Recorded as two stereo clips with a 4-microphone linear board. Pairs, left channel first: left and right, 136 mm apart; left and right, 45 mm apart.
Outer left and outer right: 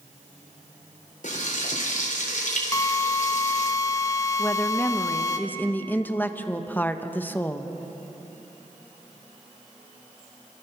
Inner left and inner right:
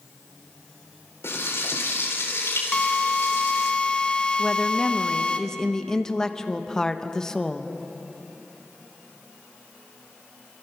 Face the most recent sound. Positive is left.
turn(degrees=15)  # may be behind; listen again after turning